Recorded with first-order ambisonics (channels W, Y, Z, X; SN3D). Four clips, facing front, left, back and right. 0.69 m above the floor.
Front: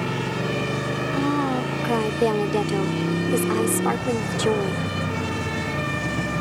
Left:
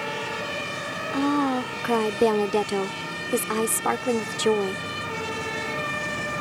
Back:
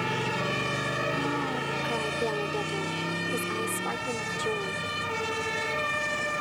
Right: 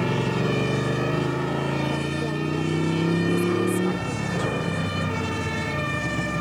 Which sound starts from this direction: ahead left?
A woman speaking, at 1.1 s.